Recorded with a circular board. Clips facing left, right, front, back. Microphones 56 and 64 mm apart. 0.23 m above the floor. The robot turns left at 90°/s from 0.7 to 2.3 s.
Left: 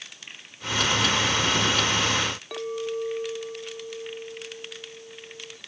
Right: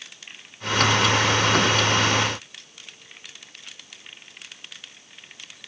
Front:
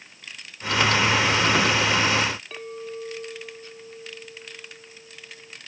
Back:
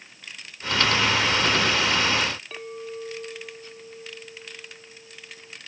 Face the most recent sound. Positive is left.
turn(degrees=90)